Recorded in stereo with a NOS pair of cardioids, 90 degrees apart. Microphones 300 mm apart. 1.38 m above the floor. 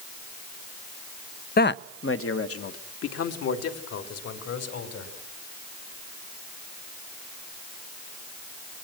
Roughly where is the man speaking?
Ahead left.